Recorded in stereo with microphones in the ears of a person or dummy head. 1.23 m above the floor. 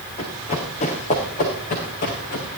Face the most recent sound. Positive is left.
turn(degrees=50)  # may be behind; listen again after turning